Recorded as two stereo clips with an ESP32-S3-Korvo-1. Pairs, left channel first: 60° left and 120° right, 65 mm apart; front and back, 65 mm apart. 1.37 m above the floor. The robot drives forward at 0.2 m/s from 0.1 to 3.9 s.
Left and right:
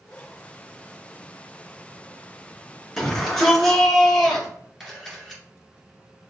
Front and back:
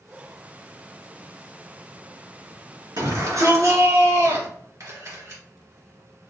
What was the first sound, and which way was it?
A shout, 155° left.